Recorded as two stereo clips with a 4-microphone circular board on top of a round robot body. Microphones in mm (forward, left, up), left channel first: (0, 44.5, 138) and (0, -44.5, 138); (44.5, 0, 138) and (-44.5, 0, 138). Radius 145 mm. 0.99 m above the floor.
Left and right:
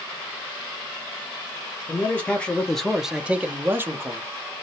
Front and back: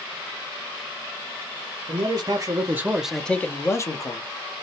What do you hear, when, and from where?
1.9 s a man speaking: 155° left, 0.9 m; by 4.3 s 35° right, 0.9 m